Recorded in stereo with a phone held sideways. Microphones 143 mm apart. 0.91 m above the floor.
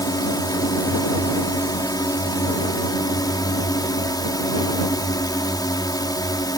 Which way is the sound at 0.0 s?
30° left (ahead or behind).